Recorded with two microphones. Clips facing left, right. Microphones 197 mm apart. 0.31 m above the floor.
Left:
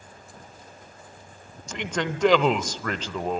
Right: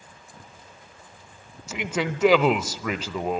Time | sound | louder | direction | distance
1.7 | a man speaking | right 1 dB | 5° right (ahead or behind) | 0.9 m